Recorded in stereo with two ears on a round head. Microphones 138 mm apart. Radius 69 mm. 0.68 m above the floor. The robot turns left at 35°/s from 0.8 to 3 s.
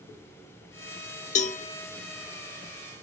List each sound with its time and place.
1.4 s a cowbell: 50° left (ahead or behind), 0.7 m; by 1.6 s 45° left (ahead or behind), 0.7 m